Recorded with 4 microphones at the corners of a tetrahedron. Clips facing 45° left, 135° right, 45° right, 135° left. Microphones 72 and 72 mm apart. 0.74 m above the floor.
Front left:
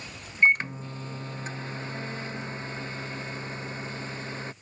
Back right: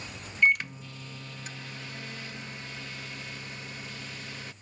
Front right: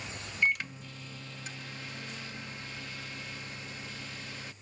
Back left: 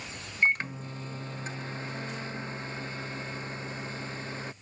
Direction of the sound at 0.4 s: 95° left.